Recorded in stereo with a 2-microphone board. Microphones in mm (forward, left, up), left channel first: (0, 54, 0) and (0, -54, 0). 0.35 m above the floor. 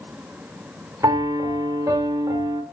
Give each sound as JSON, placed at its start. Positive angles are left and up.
{"t": 1.0, "sound": "a piano", "side_deg": -30, "distance_m": 1.2}